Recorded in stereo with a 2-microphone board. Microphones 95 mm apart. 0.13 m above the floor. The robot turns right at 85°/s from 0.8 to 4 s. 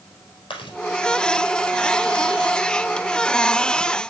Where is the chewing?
60° left (ahead or behind), 3.5 m.